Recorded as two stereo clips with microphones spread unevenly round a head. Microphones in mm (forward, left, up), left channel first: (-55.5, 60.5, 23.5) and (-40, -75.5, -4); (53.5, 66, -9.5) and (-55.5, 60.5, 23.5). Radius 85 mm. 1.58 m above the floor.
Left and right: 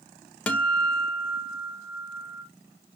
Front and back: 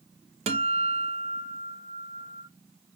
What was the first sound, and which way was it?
A guitar, 175° left.